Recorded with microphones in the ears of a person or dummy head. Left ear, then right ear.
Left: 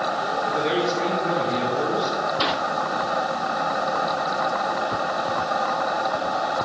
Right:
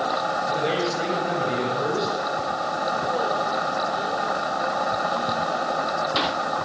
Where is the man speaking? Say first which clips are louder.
Left 1 dB; 30° left (ahead or behind), 7.5 m.